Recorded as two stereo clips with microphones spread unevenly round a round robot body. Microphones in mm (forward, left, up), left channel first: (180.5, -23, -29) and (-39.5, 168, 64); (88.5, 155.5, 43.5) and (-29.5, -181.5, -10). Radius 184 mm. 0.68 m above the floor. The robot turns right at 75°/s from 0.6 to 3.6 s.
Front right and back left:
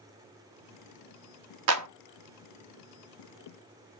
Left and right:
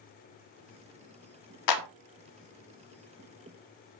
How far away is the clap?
About 0.9 m.